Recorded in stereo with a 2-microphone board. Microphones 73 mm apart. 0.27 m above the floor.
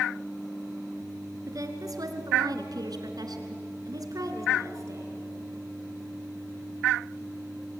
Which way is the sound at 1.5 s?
55° right (ahead or behind).